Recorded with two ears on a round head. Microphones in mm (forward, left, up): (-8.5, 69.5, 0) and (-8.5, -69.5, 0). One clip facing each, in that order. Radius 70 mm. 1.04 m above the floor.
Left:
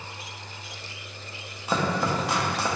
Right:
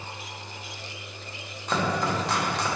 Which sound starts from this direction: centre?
Chopping, at 1.7 s.